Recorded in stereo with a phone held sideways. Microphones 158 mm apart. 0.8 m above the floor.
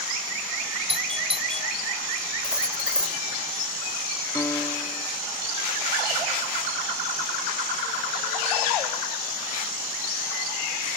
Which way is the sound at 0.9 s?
35° right (ahead or behind).